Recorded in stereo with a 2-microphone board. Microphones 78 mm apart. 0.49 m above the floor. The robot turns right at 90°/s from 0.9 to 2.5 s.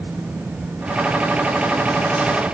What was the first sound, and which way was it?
Only background noise.